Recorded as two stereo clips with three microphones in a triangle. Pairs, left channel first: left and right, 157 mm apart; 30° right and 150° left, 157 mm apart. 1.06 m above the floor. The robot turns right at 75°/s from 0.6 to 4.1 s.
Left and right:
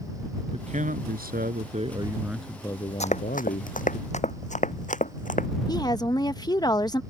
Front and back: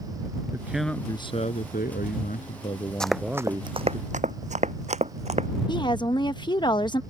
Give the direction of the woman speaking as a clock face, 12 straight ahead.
11 o'clock.